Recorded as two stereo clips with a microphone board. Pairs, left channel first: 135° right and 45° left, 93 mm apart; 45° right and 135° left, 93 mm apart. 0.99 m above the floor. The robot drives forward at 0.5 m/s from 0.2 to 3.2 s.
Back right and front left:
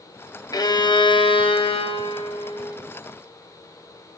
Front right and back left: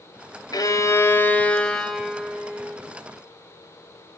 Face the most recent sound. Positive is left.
turn(degrees=-150)